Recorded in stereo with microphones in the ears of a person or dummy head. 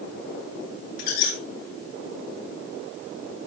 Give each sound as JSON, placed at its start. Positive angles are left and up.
{"t": 1.0, "sound": "a squeak", "side_deg": 60, "distance_m": 8.0}